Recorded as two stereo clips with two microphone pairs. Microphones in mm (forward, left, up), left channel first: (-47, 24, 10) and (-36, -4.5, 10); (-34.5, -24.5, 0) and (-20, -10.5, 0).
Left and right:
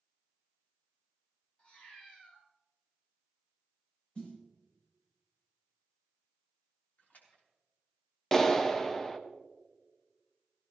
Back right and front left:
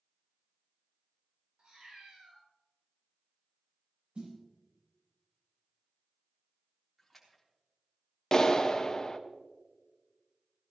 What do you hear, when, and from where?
1.6 s a cat meowing: 60° left, 6.5 m
4.2 s a snare drum: 55° left, 7.5 m
7.0 s a splash: 130° left, 3.5 m
8.3 s a clap: straight behind, 1.0 m